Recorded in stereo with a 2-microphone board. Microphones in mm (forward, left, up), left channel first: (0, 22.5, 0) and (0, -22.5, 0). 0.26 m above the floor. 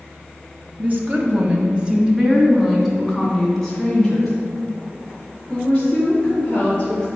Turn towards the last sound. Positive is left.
turn(degrees=20)  # may be behind; listen again after turning